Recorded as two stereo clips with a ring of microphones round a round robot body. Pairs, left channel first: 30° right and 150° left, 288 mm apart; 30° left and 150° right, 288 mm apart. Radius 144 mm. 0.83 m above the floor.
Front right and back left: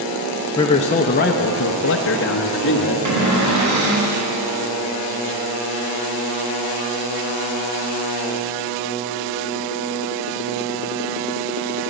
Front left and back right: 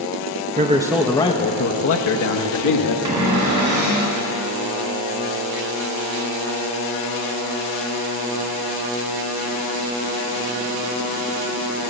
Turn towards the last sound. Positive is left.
turn(degrees=180)